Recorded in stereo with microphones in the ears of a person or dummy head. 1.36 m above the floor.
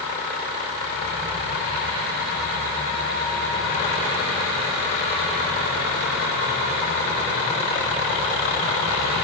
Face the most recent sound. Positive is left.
No sound to turn to.